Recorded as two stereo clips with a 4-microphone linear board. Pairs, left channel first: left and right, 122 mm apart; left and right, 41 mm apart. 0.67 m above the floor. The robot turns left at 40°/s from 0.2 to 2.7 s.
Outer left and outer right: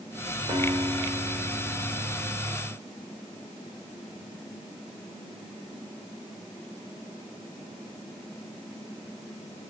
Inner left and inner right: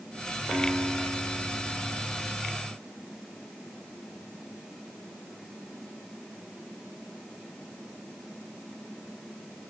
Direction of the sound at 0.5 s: 140° right.